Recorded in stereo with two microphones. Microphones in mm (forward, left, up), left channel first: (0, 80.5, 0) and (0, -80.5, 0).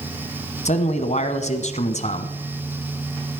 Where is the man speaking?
45° left (ahead or behind), 1.4 m.